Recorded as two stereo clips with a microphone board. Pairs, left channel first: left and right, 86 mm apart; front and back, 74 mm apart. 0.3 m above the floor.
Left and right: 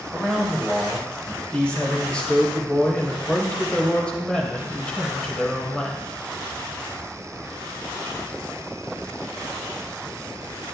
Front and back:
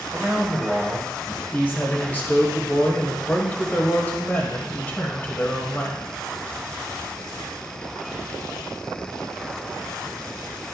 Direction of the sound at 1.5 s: 25° left.